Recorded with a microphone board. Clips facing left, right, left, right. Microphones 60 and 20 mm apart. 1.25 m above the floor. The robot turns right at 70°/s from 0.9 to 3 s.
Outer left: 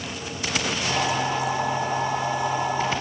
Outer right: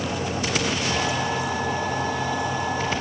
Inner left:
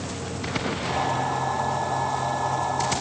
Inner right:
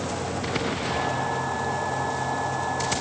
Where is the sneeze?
I don't hear a sneeze.